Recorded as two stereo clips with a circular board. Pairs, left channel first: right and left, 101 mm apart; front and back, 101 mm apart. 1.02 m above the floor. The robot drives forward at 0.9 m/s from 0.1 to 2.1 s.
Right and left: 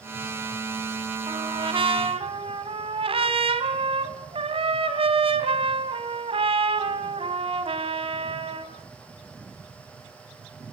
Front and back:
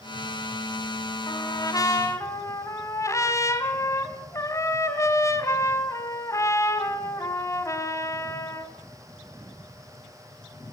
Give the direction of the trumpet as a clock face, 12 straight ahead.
10 o'clock.